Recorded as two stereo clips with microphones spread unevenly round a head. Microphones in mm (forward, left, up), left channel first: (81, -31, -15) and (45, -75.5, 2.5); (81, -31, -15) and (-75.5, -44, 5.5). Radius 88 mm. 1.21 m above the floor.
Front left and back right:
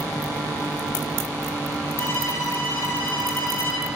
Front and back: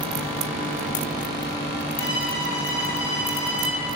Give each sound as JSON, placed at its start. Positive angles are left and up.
{"t": 2.0, "sound": "a violin", "azimuth_deg": 15, "distance_m": 2.0}